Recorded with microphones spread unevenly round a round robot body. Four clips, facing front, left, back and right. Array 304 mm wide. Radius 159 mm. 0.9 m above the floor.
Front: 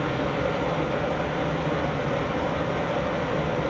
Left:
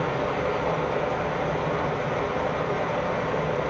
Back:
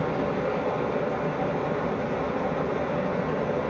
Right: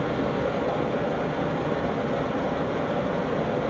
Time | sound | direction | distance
0.0 | running water | 150° right | 4 m